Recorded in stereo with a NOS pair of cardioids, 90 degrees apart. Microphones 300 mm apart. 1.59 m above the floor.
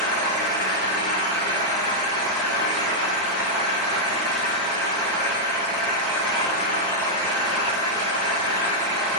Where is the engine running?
60° left, 1.4 m.